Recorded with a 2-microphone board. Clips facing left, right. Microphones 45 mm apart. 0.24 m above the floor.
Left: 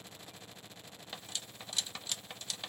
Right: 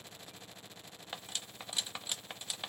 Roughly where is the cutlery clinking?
Centre.